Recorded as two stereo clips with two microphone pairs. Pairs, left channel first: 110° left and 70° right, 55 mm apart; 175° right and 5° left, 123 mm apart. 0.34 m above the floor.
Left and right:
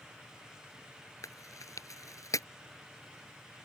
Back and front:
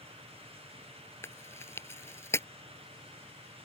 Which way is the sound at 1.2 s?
115° left.